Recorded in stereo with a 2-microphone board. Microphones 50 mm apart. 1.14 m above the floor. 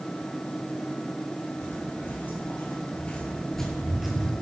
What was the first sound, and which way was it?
Footsteps, 40° left (ahead or behind).